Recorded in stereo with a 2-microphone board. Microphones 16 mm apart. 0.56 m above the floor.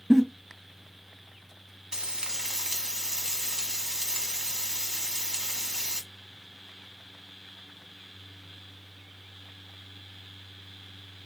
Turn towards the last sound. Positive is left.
turn(degrees=-85)